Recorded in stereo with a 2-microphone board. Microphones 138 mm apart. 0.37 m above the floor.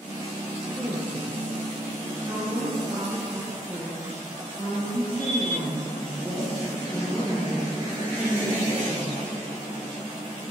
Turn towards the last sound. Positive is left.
turn(degrees=-15)  # may be behind; listen again after turning